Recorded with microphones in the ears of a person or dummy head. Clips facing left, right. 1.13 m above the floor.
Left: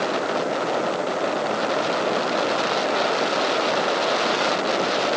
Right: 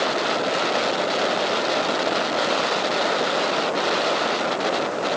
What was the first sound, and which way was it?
Only background noise.